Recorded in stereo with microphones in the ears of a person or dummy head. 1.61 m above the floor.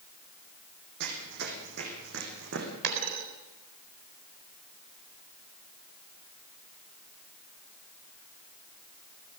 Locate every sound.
1.0 s running footsteps: 60° right (ahead or behind), 5 m; by 2.7 s 70° right (ahead or behind), 7 m
2.8 s a dropped coin: 60° right (ahead or behind), 4 m